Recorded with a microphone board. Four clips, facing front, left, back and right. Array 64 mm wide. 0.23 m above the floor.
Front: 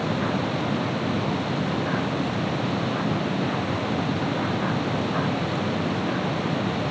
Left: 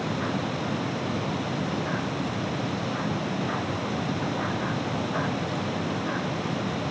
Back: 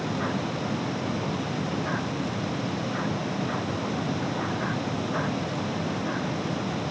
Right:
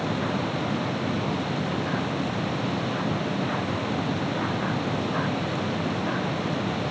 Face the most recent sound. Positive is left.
No sound to turn to.